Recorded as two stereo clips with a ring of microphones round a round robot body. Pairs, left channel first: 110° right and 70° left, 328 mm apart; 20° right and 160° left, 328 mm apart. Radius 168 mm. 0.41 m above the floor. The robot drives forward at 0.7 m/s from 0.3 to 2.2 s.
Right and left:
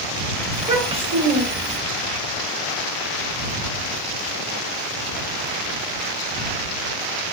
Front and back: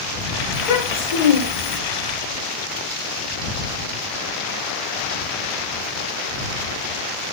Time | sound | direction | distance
0.5 | a child speaking | 5° right | 1.4 m